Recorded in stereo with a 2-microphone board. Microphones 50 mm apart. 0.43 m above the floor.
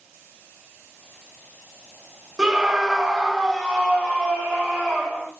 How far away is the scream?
About 0.8 m.